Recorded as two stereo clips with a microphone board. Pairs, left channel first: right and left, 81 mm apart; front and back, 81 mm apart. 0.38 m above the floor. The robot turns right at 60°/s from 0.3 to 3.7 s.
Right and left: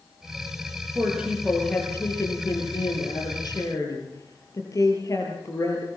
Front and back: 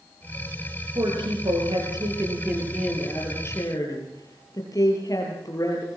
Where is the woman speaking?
150° left, 8.5 m; by 5.9 s 45° right, 8.5 m.